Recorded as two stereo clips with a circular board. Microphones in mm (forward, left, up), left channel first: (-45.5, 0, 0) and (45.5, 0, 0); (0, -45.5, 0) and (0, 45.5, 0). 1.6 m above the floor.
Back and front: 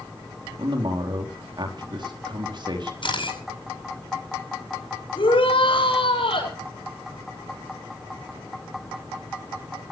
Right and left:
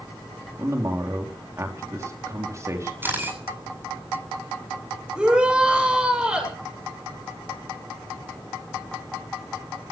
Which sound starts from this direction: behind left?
A camera shutter, at 3.0 s.